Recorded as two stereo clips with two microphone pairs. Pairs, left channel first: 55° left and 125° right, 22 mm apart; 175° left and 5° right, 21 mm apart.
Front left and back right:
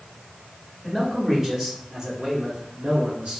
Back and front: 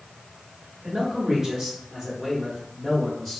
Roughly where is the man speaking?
Ahead right.